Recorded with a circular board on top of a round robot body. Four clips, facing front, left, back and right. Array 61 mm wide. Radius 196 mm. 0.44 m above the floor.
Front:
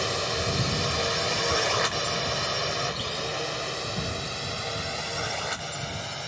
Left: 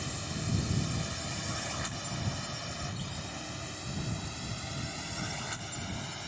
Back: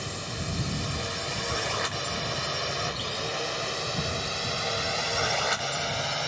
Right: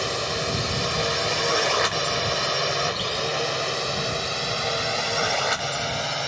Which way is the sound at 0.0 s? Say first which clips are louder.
Right 12 dB, front 7 dB; 60° right.